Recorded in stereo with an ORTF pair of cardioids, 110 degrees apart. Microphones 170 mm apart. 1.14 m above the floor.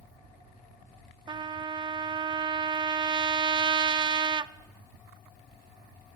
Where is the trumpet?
25° right, 0.8 m.